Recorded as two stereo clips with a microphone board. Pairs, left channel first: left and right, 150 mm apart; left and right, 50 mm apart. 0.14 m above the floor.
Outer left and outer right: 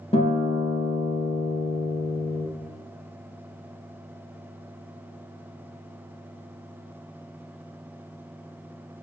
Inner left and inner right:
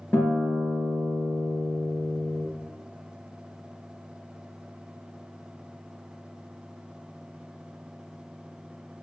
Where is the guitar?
40° left (ahead or behind), 2 m.